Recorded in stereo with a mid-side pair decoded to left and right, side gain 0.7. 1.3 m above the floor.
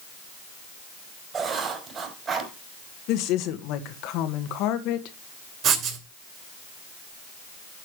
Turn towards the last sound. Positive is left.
turn(degrees=-45)